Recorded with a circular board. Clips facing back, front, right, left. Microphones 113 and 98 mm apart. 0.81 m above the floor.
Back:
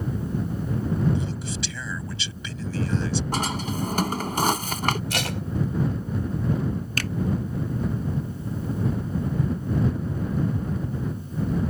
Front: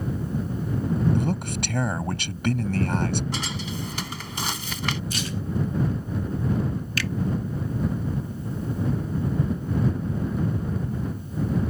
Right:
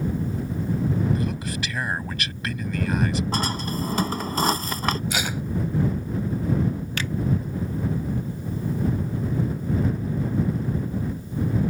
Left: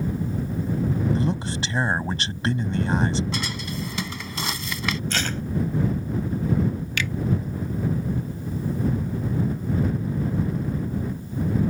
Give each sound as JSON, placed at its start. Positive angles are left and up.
{"t": 1.1, "sound": "a man speaking", "azimuth_deg": 30}
{"t": 3.3, "sound": "a drawer", "azimuth_deg": -140}
{"t": 5.1, "sound": "tape being pulled", "azimuth_deg": -170}
{"t": 7.0, "sound": "a finger snap", "azimuth_deg": -140}